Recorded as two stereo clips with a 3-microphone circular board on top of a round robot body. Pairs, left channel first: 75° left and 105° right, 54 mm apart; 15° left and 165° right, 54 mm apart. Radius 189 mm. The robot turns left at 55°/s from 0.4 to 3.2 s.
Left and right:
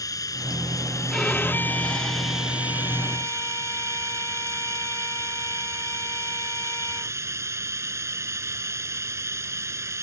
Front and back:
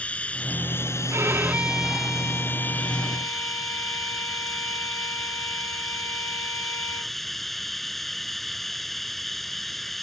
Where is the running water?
85° left; by 10.0 s 70° right.